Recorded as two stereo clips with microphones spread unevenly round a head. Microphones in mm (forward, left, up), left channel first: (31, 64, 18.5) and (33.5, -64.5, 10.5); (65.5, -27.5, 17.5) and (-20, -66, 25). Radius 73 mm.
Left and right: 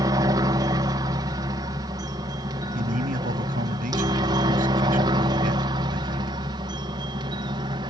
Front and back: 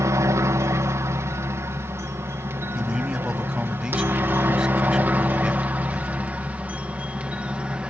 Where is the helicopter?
125° right; by 7.9 s 85° right.